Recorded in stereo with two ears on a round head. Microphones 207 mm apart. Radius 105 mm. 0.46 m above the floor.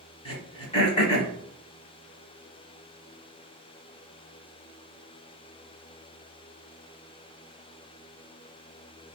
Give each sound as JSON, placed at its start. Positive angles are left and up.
{"t": 0.2, "sound": "throat clearing", "side_deg": 25, "distance_m": 0.9}